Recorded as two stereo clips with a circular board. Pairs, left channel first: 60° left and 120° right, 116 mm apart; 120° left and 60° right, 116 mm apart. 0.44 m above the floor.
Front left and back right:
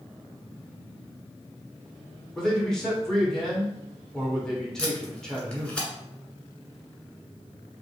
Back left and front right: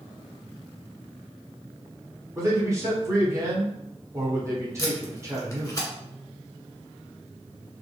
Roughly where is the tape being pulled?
Behind left.